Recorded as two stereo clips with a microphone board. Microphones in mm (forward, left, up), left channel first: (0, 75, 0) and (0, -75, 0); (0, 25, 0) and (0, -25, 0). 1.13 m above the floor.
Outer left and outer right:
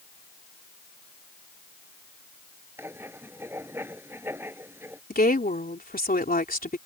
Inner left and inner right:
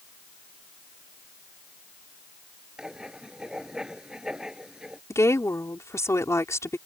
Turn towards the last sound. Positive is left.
turn(degrees=80)